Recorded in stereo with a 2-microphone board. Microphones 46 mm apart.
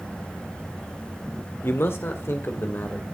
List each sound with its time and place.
1.6 s a man speaking: 65° left (ahead or behind), 1.6 m; by 3.0 s 55° left (ahead or behind), 2.5 m